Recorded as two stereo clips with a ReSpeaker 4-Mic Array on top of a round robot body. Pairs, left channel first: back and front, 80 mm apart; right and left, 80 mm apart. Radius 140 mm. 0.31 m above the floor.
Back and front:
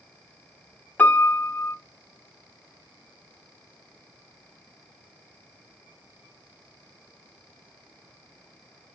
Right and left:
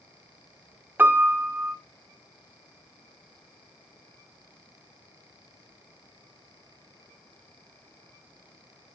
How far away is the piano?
About 0.8 m.